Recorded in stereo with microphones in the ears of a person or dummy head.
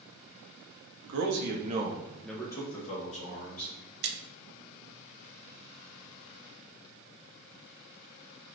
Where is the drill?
I don't hear a drill.